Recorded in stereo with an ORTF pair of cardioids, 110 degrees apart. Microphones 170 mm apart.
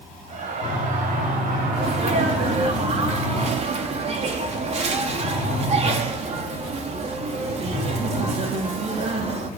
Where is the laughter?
45° right, 9 m; by 2.7 s 60° right, 7.5 m.